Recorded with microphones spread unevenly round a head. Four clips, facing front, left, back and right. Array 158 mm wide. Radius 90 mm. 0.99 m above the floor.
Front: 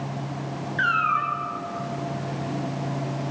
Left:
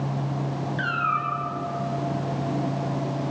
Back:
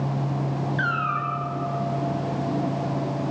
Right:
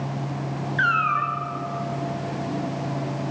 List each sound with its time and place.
0.8 s a cat meowing: 75° right, 3.5 m